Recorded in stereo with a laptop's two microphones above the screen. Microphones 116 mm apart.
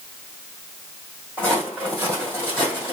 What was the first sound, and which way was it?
Footsteps, 15° left (ahead or behind).